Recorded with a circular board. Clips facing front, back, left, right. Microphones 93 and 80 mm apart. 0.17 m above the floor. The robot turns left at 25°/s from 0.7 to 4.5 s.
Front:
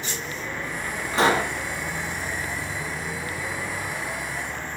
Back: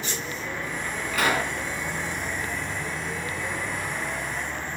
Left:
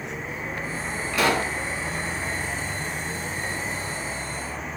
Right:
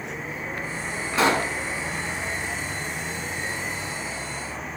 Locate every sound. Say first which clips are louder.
1.1 s a pop: front 4 dB, right 1 dB; 45° right, 1.8 m; by 1.5 s 55° right, 1.8 m